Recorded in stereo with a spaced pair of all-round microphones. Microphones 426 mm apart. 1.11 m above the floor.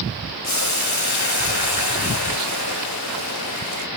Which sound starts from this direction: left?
Boiling, at 0.4 s.